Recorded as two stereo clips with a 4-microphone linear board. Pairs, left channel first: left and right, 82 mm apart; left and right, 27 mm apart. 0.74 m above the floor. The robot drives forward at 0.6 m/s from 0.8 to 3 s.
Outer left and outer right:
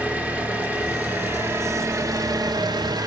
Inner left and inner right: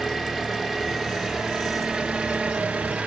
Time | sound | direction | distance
0.0 | an engine running | 20° right (ahead or behind) | 1.3 m